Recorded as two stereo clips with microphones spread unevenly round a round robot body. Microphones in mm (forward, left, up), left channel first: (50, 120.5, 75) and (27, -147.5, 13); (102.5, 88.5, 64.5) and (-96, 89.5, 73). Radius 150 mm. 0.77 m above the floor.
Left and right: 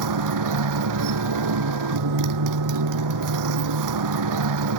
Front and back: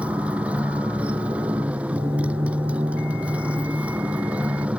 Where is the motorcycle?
95° right.